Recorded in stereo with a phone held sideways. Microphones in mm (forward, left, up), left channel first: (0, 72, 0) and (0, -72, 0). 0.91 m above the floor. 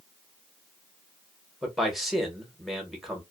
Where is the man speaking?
Centre (ahead or behind), 1.0 m.